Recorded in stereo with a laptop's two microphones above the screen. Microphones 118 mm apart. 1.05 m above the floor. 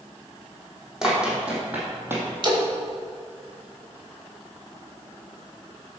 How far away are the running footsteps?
About 3 m.